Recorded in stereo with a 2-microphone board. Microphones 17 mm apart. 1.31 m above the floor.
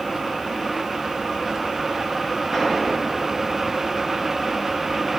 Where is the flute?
No flute in this recording.